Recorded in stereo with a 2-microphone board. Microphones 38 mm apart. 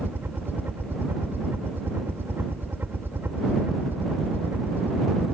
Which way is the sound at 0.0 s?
65° right (ahead or behind).